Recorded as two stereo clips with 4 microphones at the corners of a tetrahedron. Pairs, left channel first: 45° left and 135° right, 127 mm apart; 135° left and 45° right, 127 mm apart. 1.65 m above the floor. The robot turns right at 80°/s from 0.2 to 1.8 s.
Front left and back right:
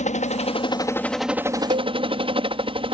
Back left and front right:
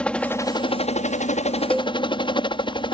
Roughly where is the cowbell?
Behind right.